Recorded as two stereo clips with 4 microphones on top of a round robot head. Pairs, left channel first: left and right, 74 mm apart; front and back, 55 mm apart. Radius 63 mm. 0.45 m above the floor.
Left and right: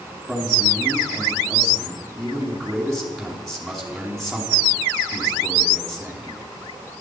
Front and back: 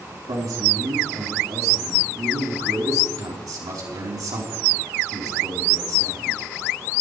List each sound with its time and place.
0.3 s a man speaking: 175° left, 4.5 m